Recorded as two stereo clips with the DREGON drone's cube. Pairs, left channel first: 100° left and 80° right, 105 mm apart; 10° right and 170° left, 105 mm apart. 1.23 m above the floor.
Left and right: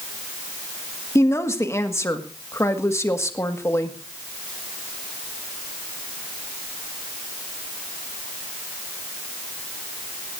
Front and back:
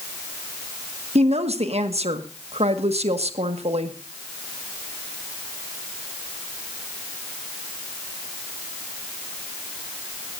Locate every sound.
1.1 s a woman speaking: 160° left, 1.5 m